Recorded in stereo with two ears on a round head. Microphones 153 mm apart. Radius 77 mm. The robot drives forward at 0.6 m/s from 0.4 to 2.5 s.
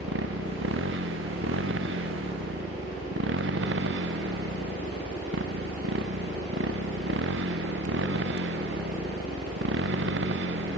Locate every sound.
0.0 s a motorcycle: 80° right